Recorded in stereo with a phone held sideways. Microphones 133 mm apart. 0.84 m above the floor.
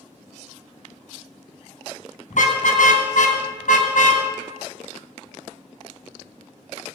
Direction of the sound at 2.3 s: 70° left (ahead or behind).